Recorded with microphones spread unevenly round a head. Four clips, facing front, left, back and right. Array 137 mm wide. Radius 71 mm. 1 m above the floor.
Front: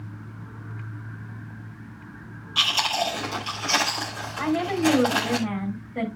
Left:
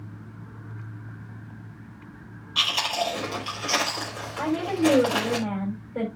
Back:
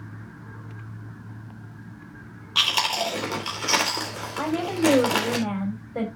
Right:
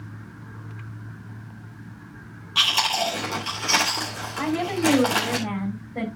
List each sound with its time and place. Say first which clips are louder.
2.5 s chewing: right 3 dB, even; straight behind, 4 m
4.4 s a woman speaking: even, even; 155° left, 7 m